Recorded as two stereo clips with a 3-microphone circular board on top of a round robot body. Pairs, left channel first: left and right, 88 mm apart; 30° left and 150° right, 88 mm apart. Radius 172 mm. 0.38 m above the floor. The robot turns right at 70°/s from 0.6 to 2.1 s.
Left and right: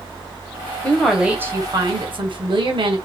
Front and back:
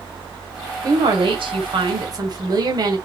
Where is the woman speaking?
165° left, 2.5 m; by 3.0 s 110° right, 2.5 m.